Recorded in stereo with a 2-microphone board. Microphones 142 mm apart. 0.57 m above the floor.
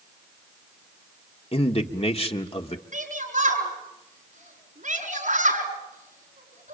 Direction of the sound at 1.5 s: 45° left (ahead or behind).